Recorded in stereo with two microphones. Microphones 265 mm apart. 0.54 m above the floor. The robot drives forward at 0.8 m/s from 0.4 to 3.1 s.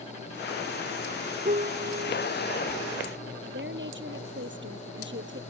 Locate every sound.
1.4 s a piano: 35° right (ahead or behind); by 3.0 s 30° right (ahead or behind)
3.5 s a woman speaking: 45° right (ahead or behind)